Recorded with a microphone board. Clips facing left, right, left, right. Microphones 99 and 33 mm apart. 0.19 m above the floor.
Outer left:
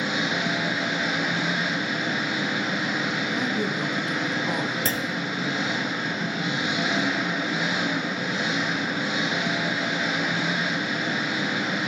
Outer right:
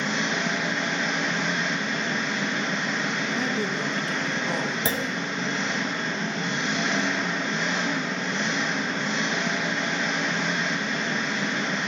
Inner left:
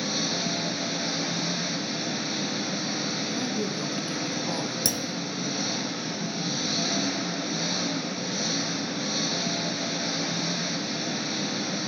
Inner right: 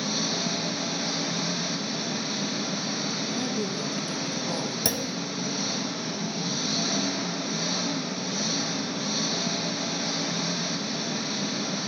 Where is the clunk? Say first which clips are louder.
Outer right 1 dB, inner right 1 dB; 20° right (ahead or behind), 0.7 m.